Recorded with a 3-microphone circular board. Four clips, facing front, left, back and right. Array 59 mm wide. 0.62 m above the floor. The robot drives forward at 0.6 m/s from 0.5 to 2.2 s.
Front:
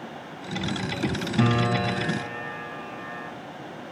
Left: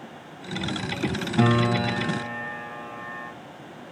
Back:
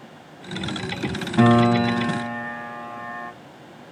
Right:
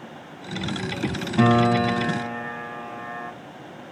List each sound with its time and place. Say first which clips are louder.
1.4 s a piano: right 4 dB, back 8 dB; 170° right, 2.5 m; by 3.3 s 175° right, 3 m